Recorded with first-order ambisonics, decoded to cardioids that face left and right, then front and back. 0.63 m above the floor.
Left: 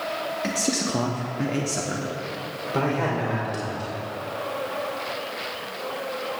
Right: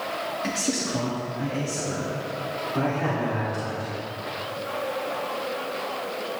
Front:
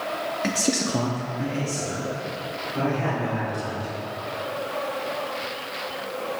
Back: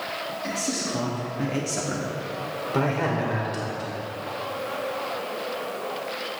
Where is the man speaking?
10° left, 1.0 m; by 3.9 s 150° left, 3 m.